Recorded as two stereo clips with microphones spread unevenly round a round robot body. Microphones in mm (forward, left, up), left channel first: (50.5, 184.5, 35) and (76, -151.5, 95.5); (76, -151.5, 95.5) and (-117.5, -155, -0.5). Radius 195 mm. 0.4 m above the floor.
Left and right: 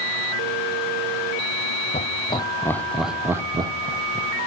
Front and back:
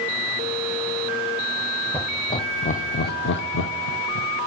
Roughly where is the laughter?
Behind left.